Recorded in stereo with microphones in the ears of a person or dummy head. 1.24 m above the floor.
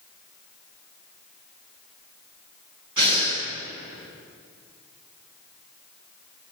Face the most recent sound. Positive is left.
turn(degrees=-25)  # may be behind; listen again after turning